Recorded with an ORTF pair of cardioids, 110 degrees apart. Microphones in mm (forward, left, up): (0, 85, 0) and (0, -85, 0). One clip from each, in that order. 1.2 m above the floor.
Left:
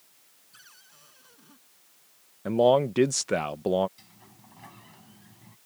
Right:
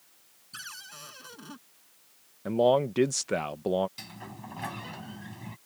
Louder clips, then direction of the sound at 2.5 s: Left 3 dB; 10° left.